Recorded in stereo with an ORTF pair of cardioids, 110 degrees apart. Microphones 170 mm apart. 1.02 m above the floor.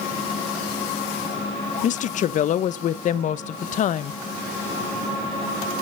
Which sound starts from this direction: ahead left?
A woman speaking, at 1.8 s.